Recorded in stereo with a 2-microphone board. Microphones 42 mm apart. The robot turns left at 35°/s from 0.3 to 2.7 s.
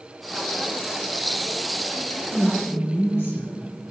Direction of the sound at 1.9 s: 65° left (ahead or behind).